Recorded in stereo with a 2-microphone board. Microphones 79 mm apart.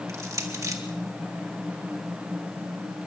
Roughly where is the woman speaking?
I don't hear a woman speaking.